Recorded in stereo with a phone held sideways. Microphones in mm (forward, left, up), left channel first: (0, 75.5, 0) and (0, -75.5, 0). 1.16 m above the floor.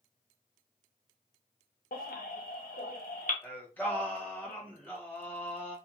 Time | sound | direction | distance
1.9 | a baby crying | 70° left (ahead or behind) | 0.7 m
3.4 | singing | 10° left (ahead or behind) | 0.9 m